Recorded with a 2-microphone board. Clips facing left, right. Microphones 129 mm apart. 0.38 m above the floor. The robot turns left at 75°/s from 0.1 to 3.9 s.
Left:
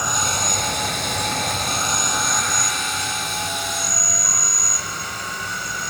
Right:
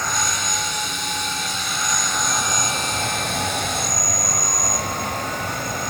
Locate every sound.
0.0 s an insect: 165° left, 1.0 m; by 5.9 s 120° right, 1.0 m